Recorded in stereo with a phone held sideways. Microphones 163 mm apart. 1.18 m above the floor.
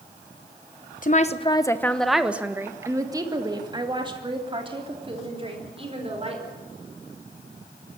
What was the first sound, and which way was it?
A woman speaking, 50° left (ahead or behind).